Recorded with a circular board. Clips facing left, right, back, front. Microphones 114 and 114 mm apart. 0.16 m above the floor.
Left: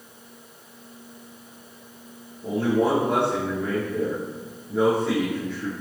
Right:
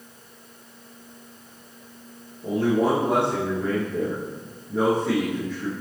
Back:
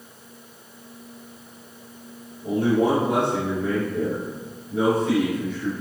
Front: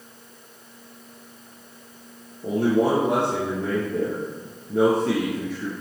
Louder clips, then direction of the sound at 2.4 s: Right 1 dB, even; 5° right.